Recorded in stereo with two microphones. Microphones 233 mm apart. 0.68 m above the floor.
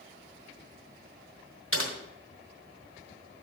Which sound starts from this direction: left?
Typing on a keyboard, at 1.7 s.